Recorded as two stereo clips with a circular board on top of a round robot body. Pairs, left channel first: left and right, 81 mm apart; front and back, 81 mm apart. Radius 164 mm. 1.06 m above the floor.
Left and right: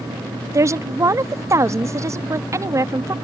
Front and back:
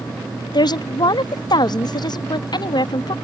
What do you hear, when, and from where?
0.5 s a woman speaking: 35° right